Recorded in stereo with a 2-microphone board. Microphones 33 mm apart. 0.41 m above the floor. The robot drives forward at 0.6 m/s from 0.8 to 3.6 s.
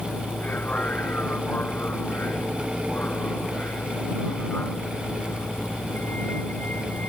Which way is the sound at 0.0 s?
55° left (ahead or behind).